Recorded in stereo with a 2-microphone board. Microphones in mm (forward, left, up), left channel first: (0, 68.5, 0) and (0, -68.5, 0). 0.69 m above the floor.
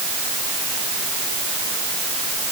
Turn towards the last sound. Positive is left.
No sound to turn to.